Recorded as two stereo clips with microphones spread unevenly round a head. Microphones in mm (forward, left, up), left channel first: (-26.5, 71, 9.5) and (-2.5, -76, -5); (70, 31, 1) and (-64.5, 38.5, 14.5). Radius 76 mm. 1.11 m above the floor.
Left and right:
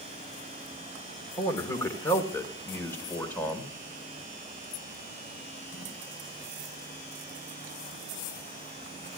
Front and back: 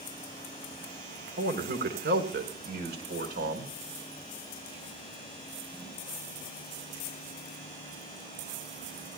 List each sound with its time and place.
1.4 s a man speaking: 170° left, 3.5 m; by 3.7 s straight behind, 4.5 m